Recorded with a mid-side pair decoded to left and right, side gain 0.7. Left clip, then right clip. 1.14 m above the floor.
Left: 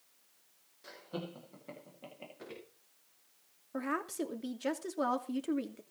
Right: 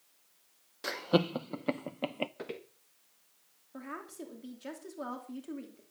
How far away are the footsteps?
About 5.5 m.